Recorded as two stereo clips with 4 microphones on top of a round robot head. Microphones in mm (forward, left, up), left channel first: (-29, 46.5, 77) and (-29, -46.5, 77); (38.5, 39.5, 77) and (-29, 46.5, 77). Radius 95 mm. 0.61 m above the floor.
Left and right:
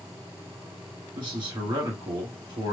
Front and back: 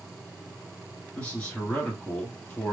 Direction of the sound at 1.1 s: 75° right.